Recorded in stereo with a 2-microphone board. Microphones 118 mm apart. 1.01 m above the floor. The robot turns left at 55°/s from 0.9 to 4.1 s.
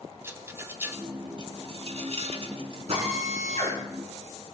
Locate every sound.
0.2 s a rattle: 20° right (ahead or behind), 1.6 m; by 2.8 s 45° right (ahead or behind), 1.6 m
2.9 s a drill: 60° right, 7.5 m; by 3.8 s 110° right, 7.5 m